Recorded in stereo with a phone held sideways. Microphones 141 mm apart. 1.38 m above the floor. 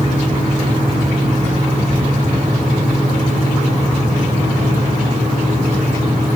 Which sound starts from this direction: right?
A fan, at 0.0 s.